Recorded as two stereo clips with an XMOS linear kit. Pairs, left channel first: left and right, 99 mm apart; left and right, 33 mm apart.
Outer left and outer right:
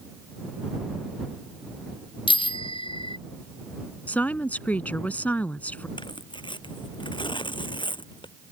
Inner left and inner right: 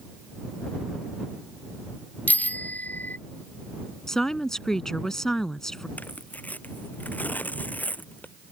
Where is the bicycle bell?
65° left (ahead or behind).